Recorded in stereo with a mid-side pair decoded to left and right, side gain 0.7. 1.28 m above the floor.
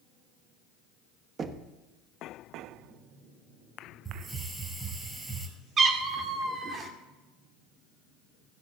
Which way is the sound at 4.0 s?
10° right.